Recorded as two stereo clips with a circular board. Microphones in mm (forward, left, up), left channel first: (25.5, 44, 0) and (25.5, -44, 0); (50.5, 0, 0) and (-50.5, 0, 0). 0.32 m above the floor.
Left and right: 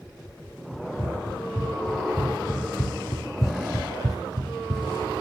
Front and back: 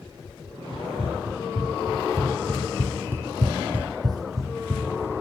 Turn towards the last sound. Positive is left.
turn(degrees=-110)